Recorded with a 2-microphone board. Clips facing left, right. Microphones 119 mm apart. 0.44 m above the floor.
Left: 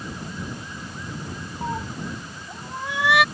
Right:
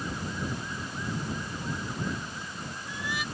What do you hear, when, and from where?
1.6 s a cat meowing: 75° left (ahead or behind)